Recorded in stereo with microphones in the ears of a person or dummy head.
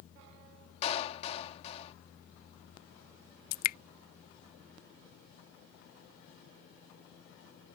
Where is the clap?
35° left (ahead or behind).